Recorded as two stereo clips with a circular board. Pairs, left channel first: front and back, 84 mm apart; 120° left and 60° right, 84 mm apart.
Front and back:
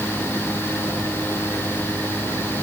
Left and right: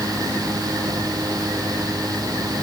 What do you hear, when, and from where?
Only background noise.